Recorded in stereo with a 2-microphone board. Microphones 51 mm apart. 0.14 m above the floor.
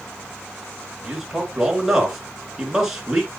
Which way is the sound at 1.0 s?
5° right (ahead or behind).